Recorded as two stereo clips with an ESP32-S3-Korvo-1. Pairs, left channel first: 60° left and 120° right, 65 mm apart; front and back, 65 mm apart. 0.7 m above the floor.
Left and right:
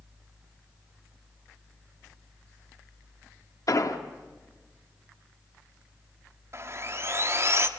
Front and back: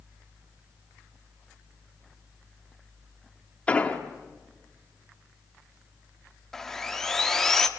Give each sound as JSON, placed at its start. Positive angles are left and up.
{"t": 3.7, "sound": "an explosion", "azimuth_deg": 70, "distance_m": 1.4}
{"t": 6.5, "sound": "sawing", "azimuth_deg": -85, "distance_m": 1.3}